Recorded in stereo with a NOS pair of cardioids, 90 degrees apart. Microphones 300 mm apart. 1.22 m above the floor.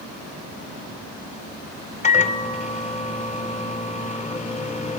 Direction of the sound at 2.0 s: 25° left.